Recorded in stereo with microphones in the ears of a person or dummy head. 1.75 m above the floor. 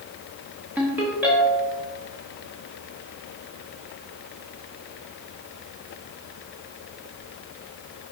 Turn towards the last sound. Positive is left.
turn(degrees=-10)  # may be behind; listen again after turning